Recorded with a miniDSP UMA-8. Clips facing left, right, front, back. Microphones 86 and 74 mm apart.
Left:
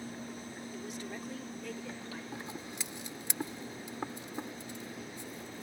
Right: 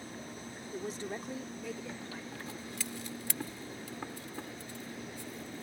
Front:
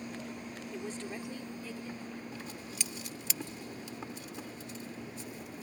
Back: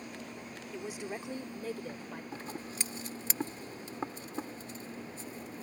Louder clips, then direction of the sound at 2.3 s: Left 1 dB, back 2 dB; 150° left.